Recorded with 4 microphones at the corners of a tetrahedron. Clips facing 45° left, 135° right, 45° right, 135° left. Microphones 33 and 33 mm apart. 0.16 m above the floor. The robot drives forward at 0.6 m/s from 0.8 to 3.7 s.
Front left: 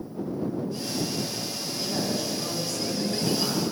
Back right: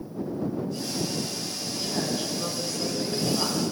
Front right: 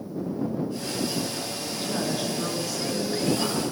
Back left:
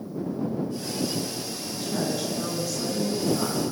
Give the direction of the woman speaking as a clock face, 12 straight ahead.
2 o'clock.